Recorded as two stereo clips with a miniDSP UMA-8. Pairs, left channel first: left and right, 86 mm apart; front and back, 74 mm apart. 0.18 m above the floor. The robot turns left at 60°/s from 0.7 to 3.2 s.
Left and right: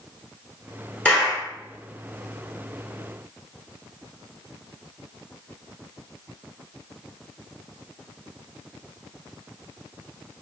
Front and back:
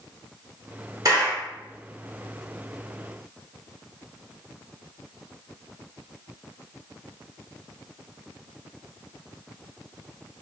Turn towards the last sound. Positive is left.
turn(degrees=35)